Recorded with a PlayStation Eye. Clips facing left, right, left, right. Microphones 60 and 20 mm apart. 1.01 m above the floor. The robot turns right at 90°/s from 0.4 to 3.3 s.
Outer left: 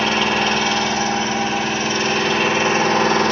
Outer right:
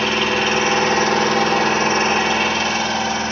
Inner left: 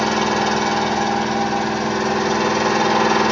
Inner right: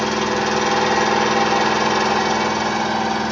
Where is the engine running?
175° right, 1.1 m; by 3.3 s 85° left, 1.1 m.